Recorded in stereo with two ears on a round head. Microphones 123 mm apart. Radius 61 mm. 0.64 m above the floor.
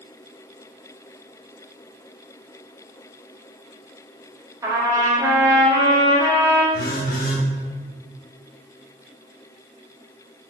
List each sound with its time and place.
4.6 s a trumpet: 20° right (ahead or behind), 0.5 m
6.7 s a phone buzzing: 70° left (ahead or behind), 0.6 m